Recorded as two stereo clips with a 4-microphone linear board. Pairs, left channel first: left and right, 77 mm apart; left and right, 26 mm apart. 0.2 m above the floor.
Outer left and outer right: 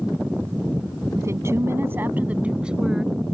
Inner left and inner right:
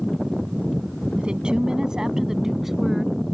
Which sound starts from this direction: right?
A woman speaking, at 1.1 s.